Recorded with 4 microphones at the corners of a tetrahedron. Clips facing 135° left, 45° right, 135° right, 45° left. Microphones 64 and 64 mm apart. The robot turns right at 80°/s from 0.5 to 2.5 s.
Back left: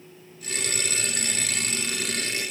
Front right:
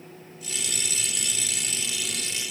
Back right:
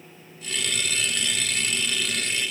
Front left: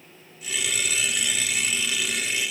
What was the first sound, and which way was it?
Only background noise.